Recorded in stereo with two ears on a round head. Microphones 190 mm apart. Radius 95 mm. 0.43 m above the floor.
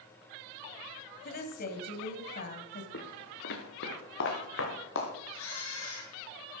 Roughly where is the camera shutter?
Left.